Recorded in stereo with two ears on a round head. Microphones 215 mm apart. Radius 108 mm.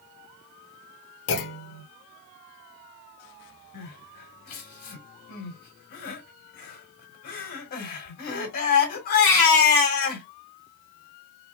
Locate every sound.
1.3 s a clunk: 50° left (ahead or behind), 0.6 m
3.7 s crying: 40° left (ahead or behind), 1.9 m